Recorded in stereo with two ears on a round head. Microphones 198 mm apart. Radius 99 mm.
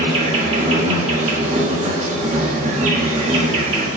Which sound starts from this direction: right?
An insect, at 0.0 s.